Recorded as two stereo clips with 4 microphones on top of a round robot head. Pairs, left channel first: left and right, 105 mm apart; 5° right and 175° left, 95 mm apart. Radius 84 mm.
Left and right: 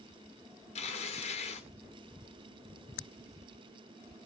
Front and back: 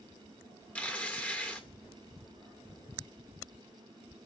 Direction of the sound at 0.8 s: 65° left.